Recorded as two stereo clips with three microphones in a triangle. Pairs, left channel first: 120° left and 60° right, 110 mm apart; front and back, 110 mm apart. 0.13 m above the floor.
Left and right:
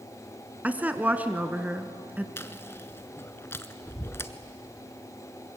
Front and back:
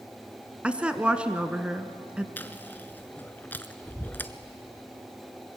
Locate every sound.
0.6 s a woman speaking: 115° right, 1.1 m
2.4 s chewing: 65° left, 0.9 m